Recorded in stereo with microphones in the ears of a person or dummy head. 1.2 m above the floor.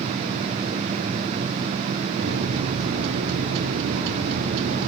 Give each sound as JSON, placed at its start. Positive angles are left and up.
{"t": 2.2, "sound": "a microwave", "side_deg": -65, "distance_m": 2.0}